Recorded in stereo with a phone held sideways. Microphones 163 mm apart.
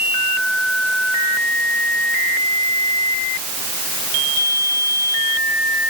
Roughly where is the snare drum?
I don't hear a snare drum.